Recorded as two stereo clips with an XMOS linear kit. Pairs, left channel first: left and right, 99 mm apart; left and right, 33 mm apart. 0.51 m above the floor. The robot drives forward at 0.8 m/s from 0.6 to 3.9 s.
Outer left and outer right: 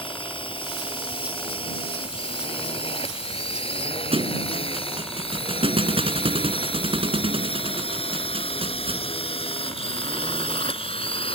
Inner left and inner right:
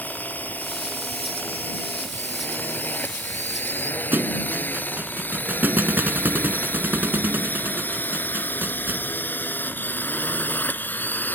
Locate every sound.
0.0 s a drone: 65° left (ahead or behind); by 11.3 s 75° left (ahead or behind)
4.1 s a thud: 80° right